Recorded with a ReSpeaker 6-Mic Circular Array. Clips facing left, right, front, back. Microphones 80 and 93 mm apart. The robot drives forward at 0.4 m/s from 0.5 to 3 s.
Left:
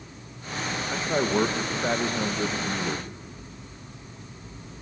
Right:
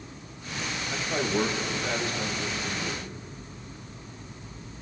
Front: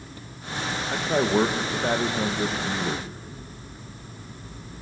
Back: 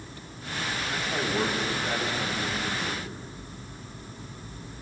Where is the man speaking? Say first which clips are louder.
Left 3 dB, front 8 dB; 30° left, 2.5 m; by 3.1 s 45° left, 1.8 m.